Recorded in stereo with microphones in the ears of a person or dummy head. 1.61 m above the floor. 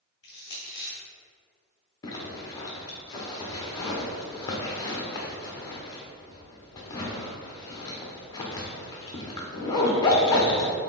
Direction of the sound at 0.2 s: 20° left (ahead or behind).